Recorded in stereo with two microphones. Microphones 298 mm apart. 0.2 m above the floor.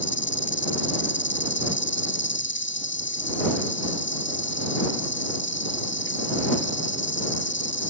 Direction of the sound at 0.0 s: 40° left (ahead or behind).